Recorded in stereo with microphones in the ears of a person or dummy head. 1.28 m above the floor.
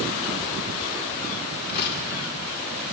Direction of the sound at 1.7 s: 55° left (ahead or behind).